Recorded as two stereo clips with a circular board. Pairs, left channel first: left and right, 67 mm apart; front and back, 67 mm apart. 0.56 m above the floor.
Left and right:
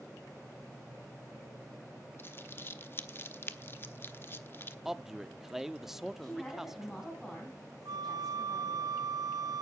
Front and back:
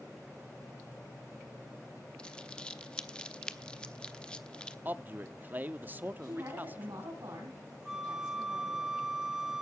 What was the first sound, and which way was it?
Crumpling, 65° left.